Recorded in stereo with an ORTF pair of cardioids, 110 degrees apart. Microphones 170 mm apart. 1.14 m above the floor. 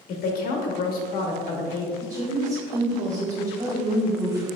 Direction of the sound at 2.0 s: 10° right.